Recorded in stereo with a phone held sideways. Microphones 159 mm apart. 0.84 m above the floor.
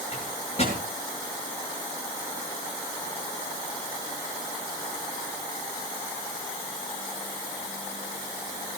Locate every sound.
0.1 s a microwave: 40° left (ahead or behind), 9.5 m